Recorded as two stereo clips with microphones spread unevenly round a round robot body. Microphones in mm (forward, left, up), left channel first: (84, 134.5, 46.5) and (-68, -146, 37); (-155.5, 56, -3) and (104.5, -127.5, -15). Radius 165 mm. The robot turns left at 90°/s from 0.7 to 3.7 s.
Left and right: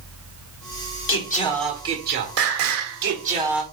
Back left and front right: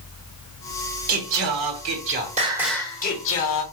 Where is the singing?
20° left, 1.3 m; by 3.6 s 150° left, 1.3 m.